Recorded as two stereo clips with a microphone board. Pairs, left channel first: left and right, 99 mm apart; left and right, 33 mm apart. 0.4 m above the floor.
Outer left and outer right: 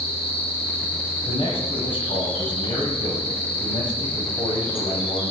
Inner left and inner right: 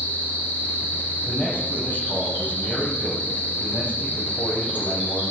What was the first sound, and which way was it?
An insect, 65° left (ahead or behind).